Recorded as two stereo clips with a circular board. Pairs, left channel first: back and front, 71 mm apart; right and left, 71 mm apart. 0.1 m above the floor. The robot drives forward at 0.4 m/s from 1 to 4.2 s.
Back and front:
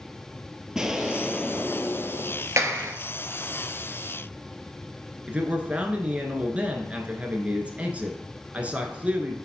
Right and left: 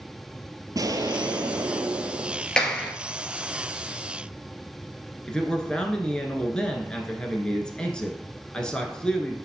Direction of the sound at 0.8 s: 80° left.